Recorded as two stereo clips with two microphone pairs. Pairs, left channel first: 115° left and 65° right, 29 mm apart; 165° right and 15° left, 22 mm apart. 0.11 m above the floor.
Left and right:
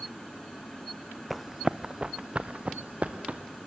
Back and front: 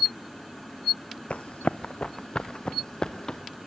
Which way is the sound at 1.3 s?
155° right.